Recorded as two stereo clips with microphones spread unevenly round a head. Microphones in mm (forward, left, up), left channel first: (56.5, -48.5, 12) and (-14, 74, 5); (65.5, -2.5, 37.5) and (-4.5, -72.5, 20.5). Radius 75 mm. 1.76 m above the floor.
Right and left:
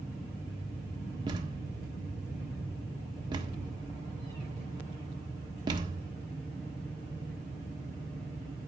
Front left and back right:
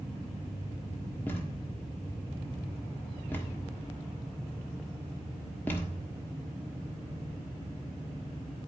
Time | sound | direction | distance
1.3 | a thud | 85° left | 1.4 m